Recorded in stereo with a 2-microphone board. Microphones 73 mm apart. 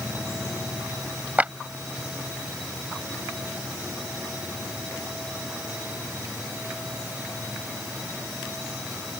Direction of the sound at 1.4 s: 20° right (ahead or behind).